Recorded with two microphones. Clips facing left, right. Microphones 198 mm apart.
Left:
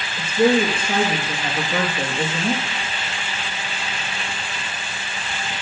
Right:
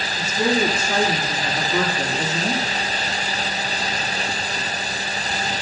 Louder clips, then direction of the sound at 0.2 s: Left 4 dB; 60° left (ahead or behind).